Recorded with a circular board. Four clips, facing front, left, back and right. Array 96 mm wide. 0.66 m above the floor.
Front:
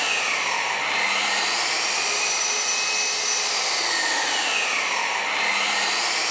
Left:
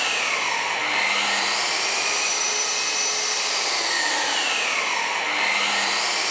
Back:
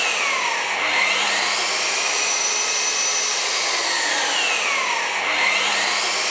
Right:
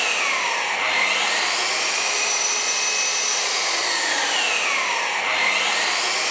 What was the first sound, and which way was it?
An engine running, 150° right.